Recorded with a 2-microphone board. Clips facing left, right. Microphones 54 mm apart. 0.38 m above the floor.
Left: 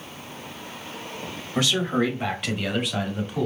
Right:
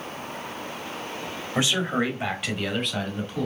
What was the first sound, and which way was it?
A man speaking, 25° right (ahead or behind).